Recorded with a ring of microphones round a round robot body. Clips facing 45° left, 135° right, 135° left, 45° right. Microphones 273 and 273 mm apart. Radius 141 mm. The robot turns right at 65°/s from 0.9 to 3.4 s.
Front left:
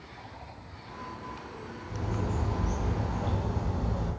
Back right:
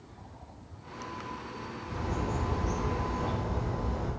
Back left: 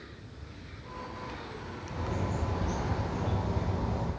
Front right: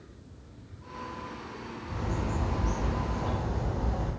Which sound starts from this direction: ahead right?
A bird, at 1.9 s.